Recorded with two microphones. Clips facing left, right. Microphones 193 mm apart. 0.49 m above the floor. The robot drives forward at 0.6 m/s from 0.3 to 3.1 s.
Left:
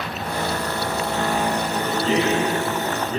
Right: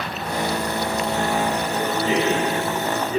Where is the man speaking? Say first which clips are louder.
Even; 15° right (ahead or behind), 2.5 m; by 3.2 s 10° right (ahead or behind), 3 m.